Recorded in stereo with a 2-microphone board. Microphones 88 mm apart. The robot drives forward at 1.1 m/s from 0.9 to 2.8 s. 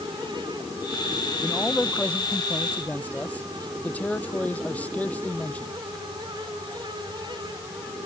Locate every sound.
1.4 s a man speaking: 15° left (ahead or behind)